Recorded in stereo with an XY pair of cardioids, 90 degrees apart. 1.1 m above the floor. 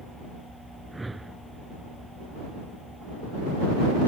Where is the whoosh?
15° right.